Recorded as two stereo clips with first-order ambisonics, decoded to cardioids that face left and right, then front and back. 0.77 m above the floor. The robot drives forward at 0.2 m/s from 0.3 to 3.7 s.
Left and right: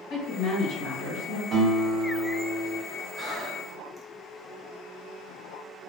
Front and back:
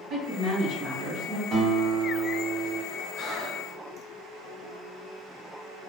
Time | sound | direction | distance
0.1 | a woman speaking | 135° left | 1.8 m
1.5 | a guitar | 155° right | 1.2 m
3.1 | breathing | 25° right | 0.6 m